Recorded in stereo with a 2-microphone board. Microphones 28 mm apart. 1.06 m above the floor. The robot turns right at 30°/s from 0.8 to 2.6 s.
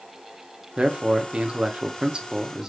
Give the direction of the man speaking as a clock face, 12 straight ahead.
3 o'clock.